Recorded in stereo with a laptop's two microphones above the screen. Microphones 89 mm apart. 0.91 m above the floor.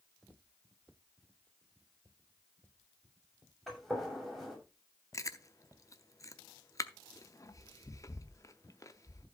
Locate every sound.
3.7 s a gunshot: centre (ahead or behind), 7 m
5.1 s chewing: 40° left (ahead or behind), 0.7 m